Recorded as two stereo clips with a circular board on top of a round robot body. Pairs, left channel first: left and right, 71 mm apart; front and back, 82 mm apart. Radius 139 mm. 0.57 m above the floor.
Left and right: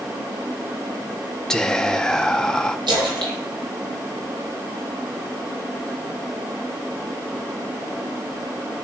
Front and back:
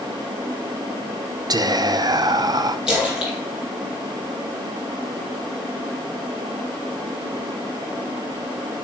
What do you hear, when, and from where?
1.5 s whispering: 170° left, 0.9 m
2.9 s a splash: 100° right, 3.5 m